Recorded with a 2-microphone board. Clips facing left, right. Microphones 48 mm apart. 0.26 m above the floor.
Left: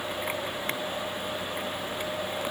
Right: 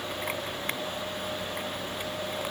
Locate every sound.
Only background noise.